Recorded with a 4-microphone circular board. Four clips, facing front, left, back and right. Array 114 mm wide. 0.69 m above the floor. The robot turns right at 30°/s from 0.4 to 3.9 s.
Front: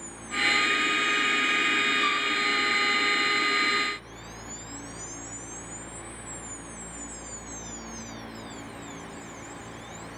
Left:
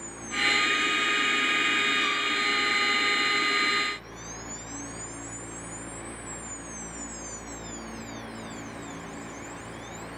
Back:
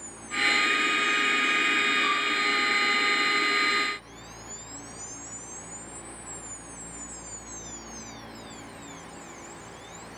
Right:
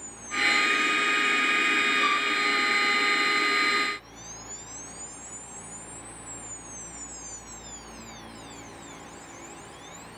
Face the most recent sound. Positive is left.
turn(degrees=-65)